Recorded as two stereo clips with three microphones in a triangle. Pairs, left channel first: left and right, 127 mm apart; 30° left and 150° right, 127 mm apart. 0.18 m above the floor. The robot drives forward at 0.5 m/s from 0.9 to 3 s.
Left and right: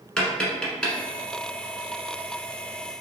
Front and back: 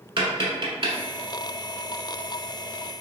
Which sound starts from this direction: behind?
Tapping, at 0.2 s.